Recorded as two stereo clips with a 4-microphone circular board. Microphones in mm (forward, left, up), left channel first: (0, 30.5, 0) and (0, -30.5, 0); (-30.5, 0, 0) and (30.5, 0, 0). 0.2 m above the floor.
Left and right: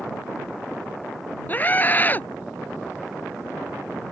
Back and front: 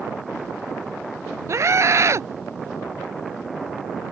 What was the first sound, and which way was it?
A scream, 35° left.